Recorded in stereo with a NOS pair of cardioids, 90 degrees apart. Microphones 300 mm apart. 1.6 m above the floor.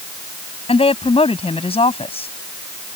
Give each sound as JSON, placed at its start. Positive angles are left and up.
{"t": 0.7, "sound": "a woman speaking", "azimuth_deg": 20}